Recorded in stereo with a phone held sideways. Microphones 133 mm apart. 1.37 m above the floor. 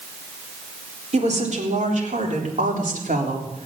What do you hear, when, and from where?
1.1 s a woman speaking: 60° right (ahead or behind), 4 m; by 3.7 s 90° right, 3.5 m